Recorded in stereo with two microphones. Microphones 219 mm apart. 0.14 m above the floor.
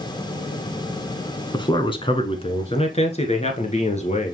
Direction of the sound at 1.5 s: 20° left (ahead or behind).